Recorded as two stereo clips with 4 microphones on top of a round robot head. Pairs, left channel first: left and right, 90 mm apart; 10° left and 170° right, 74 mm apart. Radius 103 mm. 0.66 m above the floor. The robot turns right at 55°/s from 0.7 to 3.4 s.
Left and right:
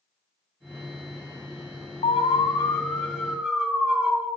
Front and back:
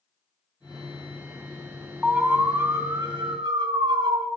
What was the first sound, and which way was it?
An alarm, 110° left.